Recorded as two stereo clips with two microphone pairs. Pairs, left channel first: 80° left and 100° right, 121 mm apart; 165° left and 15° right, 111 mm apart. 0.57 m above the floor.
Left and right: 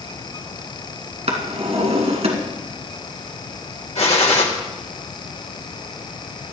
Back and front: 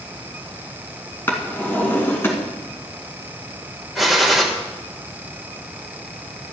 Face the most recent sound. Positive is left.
turn(degrees=75)